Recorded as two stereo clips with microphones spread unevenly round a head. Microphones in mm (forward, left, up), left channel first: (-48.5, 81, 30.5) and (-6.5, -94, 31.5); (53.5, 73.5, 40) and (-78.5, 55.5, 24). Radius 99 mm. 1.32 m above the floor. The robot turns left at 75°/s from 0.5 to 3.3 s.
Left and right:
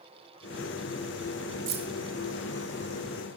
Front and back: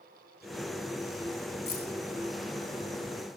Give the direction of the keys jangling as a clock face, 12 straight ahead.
1 o'clock.